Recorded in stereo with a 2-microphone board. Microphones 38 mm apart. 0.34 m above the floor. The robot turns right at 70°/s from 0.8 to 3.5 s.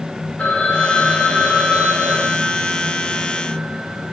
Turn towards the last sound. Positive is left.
turn(degrees=-30)